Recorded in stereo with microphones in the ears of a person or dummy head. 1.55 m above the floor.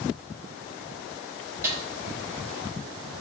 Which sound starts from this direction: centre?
A snare drum, at 1.6 s.